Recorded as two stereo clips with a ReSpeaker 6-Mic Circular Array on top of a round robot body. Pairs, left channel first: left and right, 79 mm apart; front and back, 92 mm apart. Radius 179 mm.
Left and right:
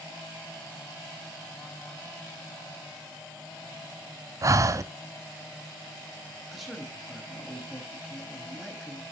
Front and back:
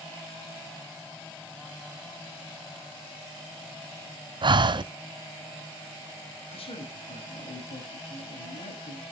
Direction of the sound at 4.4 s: 140° right.